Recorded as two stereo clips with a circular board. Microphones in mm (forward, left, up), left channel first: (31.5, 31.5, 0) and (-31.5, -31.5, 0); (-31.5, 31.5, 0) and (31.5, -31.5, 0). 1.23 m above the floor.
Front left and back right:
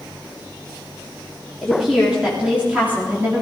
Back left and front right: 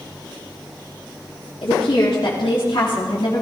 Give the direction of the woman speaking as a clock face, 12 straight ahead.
7 o'clock.